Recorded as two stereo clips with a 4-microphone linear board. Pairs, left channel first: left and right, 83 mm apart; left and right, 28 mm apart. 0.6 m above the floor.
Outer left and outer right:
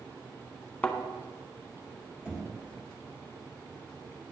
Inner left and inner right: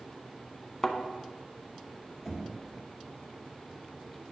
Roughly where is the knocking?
Centre.